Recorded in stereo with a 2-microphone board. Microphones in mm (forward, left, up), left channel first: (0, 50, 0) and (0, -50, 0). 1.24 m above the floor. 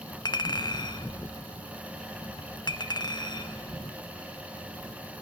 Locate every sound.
0.2 s a clink: 45° left (ahead or behind), 0.7 m